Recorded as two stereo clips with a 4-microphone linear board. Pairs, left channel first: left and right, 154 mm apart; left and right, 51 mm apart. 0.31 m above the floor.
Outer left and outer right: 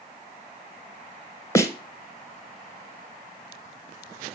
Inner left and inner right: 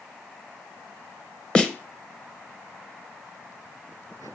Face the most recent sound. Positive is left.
turn(degrees=20)  # may be behind; listen again after turning